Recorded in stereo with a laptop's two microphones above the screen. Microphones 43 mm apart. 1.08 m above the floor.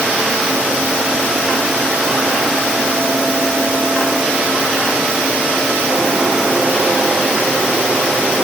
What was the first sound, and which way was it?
Only background noise.